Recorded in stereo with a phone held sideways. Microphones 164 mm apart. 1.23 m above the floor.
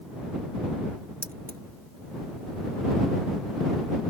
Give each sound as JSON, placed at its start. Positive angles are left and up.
{"t": 1.2, "sound": "keys jangling", "side_deg": -60}